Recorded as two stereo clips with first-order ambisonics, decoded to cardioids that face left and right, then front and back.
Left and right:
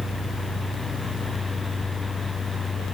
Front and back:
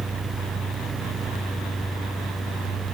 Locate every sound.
Only background noise.